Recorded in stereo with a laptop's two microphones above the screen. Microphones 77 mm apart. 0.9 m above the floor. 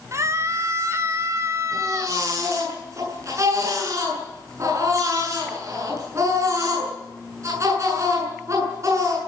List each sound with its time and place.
0.1 s a scream: 40° right (ahead or behind), 3.5 m
1.7 s a baby crying: 40° right (ahead or behind), 7.5 m